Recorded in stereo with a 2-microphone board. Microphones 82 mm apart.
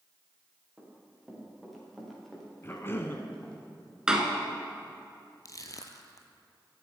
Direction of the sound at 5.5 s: 45° left (ahead or behind).